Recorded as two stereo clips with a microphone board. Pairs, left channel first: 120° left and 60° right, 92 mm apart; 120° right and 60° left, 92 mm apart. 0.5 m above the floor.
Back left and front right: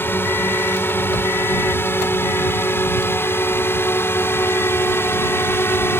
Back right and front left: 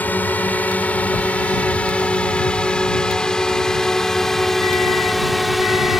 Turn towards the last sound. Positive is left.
turn(degrees=145)